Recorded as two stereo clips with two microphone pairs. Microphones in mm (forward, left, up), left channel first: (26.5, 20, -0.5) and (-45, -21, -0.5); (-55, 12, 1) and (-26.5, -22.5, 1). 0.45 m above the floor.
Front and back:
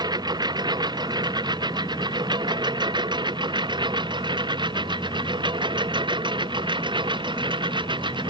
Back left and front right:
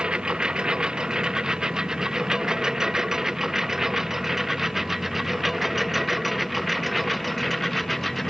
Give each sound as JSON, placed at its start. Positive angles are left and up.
{"t": 0.0, "sound": "a lawn mower", "azimuth_deg": -120}